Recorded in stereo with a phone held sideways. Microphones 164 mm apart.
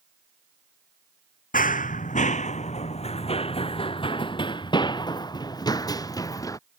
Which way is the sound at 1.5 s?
55° left (ahead or behind).